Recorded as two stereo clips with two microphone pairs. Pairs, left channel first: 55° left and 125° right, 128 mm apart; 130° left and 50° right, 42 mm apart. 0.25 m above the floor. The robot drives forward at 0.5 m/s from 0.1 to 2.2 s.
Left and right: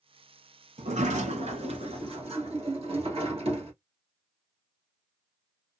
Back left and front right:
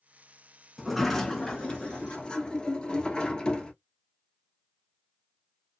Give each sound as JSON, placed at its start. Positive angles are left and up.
{"t": 0.8, "sound": "a sliding door", "azimuth_deg": -140, "distance_m": 0.6}